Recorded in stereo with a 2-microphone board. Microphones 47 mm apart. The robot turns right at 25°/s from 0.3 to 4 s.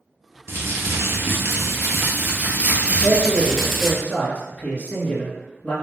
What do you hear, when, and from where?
0.5 s crumpling: 90° right, 0.8 m; by 3.9 s 5° right, 0.8 m
3.0 s a man speaking: 25° left (ahead or behind), 1.7 m; by 5.8 s 30° left (ahead or behind), 1.7 m